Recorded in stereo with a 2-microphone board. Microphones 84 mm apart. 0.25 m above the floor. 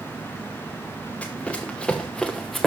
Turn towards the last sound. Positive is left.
turn(degrees=0)  # may be behind; listen again after turning